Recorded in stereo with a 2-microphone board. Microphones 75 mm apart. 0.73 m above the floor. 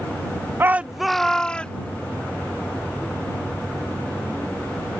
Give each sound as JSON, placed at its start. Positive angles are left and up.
{"t": 0.6, "sound": "a shout", "side_deg": -30}